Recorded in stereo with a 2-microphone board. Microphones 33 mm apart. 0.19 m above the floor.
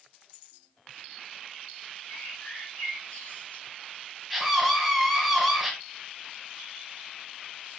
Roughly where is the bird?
Left.